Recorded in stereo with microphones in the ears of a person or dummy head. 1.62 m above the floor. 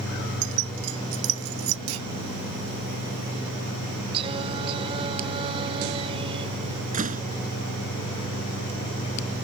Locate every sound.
0.4 s keys jangling: 85° right
1.9 s a clunk: 80° right
4.1 s singing: 25° right (ahead or behind)
6.9 s a door slam: 40° right (ahead or behind)